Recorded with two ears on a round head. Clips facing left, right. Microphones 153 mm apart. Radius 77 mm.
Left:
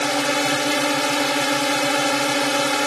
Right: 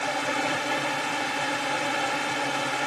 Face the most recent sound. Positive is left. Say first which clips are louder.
# left 7 dB
turn(degrees=70)  # may be behind; listen again after turning